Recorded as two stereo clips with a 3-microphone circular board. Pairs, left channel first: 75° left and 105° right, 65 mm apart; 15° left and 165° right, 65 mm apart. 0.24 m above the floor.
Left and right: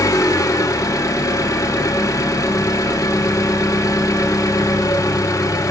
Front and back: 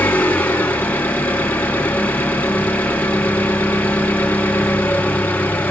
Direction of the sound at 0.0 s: 75° left.